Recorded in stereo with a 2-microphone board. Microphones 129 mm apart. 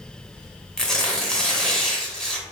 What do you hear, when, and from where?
0.8 s tearing paper: 5° left (ahead or behind), 0.9 m